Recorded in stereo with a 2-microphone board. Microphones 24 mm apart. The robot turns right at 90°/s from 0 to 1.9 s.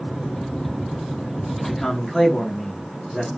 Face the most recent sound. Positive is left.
turn(degrees=15)  # may be behind; listen again after turning